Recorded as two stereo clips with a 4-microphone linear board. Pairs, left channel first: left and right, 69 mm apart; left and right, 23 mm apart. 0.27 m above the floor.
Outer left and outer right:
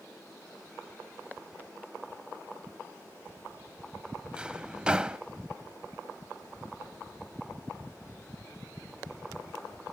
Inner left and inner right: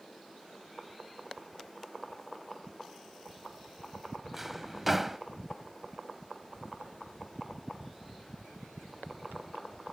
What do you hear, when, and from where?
4.3 s a drawer: 15° right (ahead or behind), 0.6 m